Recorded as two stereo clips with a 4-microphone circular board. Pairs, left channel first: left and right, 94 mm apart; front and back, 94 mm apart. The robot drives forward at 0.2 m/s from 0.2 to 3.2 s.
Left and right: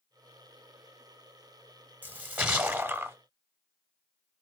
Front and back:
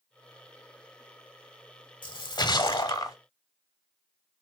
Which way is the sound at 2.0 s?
25° right.